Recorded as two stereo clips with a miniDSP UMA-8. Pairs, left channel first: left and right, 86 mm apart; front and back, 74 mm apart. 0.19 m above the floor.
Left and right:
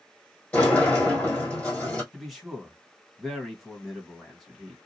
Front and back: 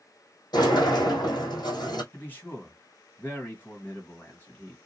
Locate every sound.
0.5 s a sliding door: 15° left, 1.6 m
2.1 s a man speaking: 5° right, 1.3 m